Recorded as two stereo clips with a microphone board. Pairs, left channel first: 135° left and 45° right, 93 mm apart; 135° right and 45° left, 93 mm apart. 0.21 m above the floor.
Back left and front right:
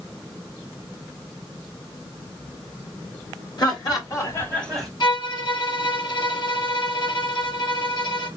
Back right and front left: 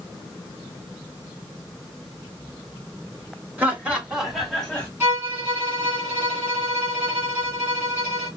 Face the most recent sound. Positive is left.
turn(degrees=110)